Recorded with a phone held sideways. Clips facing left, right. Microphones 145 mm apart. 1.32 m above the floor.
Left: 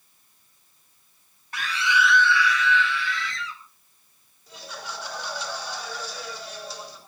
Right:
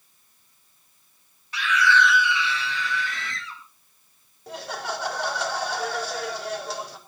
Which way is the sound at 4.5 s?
75° right (ahead or behind).